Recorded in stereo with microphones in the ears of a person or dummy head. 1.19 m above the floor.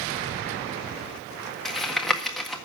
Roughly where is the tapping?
Centre.